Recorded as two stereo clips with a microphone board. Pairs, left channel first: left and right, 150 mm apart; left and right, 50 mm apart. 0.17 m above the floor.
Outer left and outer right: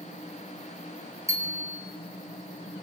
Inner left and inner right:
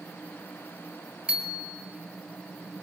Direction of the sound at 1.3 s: 20° right (ahead or behind).